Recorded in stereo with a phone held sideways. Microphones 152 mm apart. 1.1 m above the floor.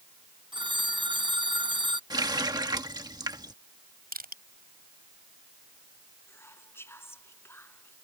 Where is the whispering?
15° left (ahead or behind).